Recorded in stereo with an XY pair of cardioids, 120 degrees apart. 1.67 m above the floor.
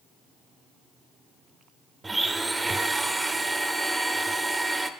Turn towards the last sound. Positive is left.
turn(degrees=-10)